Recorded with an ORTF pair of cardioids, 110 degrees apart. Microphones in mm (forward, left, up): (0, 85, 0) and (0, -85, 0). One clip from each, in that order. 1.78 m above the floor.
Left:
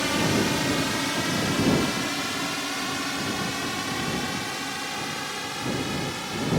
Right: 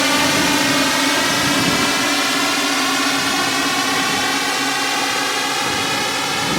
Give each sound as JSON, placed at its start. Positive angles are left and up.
{"t": 0.0, "sound": "a drone", "azimuth_deg": -60}